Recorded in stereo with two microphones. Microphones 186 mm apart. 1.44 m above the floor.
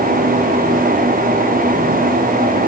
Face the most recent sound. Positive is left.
No sound to turn to.